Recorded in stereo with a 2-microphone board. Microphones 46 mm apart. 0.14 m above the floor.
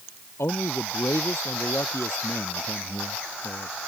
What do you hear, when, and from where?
0.4 s a man speaking: 70° left (ahead or behind)